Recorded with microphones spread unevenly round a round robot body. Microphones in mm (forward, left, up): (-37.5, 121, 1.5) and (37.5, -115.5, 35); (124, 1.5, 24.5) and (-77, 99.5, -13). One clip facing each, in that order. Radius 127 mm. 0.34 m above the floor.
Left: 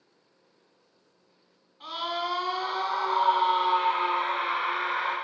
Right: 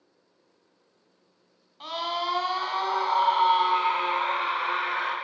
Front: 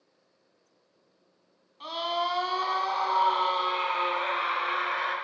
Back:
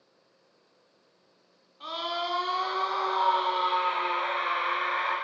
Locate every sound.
1.8 s a scream: 75° right, 2.5 m; by 5.2 s 20° right, 3.5 m